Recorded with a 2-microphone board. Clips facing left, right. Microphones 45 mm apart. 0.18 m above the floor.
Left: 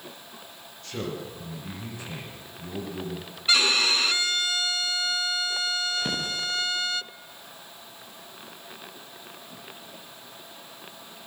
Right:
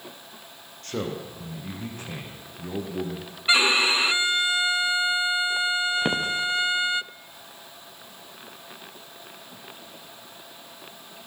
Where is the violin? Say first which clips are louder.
Right 3 dB; 20° right (ahead or behind), 0.7 m.